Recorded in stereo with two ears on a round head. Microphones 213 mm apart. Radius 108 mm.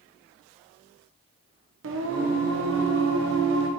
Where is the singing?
55° right (ahead or behind), 0.8 m.